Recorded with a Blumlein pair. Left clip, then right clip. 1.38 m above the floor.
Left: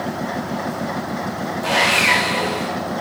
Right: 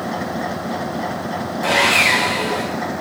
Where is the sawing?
10° right, 1.1 m.